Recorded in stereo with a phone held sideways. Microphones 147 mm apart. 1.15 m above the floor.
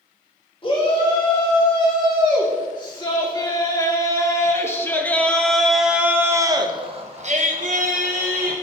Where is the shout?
40° left (ahead or behind), 4.5 m; by 8.5 s 75° right (ahead or behind), 1.6 m.